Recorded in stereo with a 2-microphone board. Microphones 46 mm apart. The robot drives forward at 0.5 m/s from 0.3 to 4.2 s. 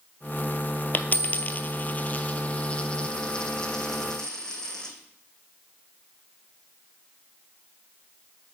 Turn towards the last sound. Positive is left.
turn(degrees=15)  # may be behind; listen again after turning